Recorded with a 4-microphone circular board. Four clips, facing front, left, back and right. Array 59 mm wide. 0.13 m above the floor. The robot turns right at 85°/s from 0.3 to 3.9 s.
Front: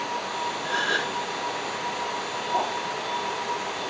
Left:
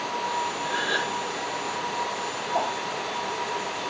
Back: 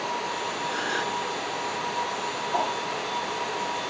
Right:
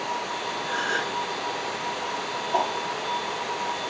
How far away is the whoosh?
About 3 m.